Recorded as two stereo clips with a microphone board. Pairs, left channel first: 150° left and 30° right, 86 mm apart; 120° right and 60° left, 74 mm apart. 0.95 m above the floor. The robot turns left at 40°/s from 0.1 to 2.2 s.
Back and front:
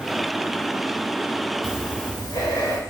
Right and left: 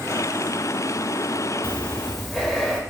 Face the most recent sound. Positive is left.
turn(degrees=150)